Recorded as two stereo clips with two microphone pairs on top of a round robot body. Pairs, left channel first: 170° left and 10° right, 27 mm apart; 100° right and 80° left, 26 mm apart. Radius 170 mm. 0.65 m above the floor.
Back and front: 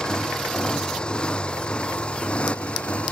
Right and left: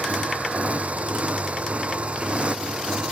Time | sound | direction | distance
0.0 | a motorcycle | 110° left | ?